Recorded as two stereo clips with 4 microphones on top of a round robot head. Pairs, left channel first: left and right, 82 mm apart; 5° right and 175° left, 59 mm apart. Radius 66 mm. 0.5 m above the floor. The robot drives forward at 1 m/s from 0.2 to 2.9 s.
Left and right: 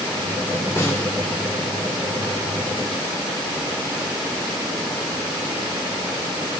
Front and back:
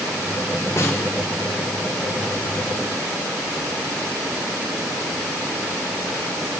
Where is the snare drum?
30° left, 1.9 m.